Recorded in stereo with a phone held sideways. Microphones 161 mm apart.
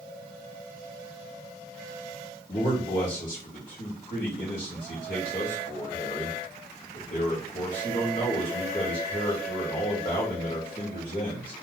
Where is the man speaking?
55° left (ahead or behind), 1.3 m.